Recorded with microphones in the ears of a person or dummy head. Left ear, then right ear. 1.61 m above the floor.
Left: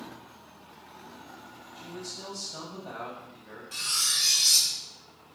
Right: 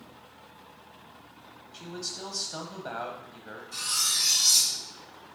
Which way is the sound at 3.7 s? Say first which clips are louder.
Left 1 dB; 45° left (ahead or behind).